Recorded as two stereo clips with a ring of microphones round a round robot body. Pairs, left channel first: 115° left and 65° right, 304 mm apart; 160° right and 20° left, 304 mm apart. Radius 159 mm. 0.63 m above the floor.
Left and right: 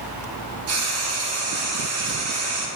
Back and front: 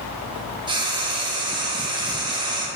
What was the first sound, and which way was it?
Frying, 50° right.